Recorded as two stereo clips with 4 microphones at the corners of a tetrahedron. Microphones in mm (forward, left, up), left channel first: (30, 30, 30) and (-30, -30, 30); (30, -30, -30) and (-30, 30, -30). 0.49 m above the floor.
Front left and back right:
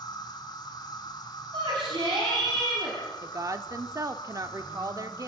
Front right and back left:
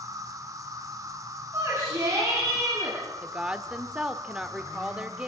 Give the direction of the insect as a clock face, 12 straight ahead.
9 o'clock.